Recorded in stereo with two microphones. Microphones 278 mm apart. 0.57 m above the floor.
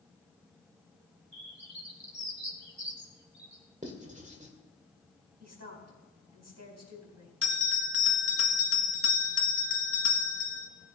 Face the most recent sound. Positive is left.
turn(degrees=-60)  # may be behind; listen again after turning